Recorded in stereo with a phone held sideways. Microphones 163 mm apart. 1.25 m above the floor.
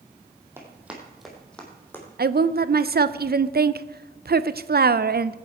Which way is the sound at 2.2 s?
75° right (ahead or behind).